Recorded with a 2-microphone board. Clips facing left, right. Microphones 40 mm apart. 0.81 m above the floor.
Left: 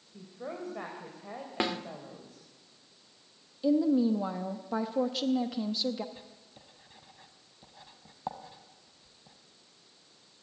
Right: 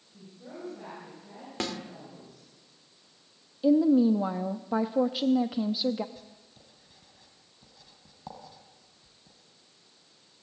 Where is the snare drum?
20° left (ahead or behind), 1.1 m.